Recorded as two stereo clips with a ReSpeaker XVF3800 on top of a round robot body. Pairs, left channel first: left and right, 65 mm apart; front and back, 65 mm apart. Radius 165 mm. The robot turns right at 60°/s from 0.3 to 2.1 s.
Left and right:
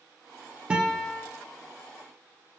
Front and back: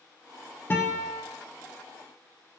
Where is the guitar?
30° right, 0.7 m; by 1.2 s 5° left, 0.7 m.